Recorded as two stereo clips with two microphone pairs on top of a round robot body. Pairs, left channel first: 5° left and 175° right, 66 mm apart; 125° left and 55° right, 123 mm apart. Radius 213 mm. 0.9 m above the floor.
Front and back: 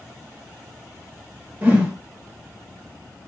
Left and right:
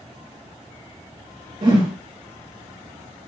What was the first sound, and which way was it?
A whoosh, 110° right.